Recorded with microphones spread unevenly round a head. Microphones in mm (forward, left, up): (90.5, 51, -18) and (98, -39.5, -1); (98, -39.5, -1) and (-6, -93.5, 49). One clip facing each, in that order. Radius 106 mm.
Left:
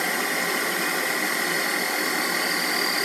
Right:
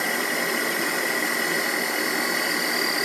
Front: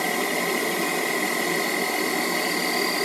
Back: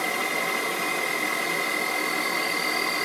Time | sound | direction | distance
0.0 | an insect | 15° right | 1.0 m